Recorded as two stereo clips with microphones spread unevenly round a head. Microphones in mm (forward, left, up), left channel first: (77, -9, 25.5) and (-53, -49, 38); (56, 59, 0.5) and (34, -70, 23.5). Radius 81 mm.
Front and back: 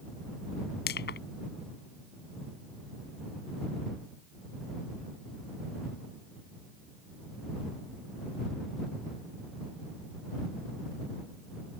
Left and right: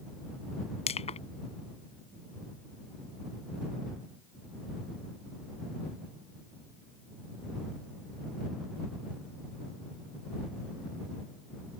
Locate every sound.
0.9 s crushing: 40° left